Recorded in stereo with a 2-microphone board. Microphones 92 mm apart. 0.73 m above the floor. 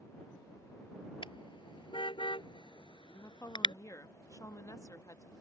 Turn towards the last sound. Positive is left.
turn(degrees=35)  # may be behind; listen again after turning